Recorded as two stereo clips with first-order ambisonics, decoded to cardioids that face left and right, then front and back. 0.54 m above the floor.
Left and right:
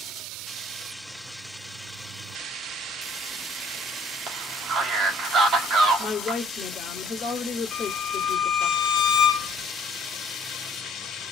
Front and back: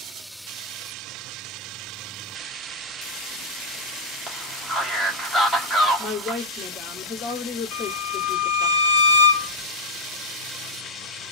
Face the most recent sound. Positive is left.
turn(degrees=35)